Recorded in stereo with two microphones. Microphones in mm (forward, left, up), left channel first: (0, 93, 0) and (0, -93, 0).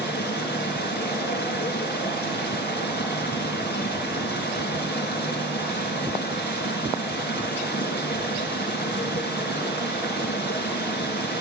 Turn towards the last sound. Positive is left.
turn(degrees=60)  # may be behind; listen again after turning